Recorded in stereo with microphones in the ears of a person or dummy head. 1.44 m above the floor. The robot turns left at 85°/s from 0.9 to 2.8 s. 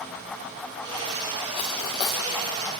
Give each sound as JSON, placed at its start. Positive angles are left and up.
{"t": 1.6, "sound": "cutlery clinking", "side_deg": 25, "distance_m": 0.7}